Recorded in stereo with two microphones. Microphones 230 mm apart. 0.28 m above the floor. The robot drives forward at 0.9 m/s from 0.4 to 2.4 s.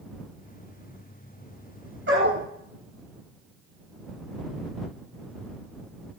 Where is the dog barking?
55° right (ahead or behind), 1.9 m; by 2.5 s 65° right (ahead or behind), 1.7 m.